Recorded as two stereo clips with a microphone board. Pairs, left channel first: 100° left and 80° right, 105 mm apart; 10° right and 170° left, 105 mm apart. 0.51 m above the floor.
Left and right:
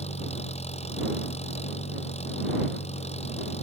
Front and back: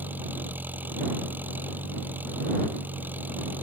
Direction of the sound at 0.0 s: 95° left.